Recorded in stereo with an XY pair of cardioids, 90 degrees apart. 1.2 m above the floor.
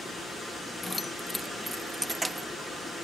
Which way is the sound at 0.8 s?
25° left.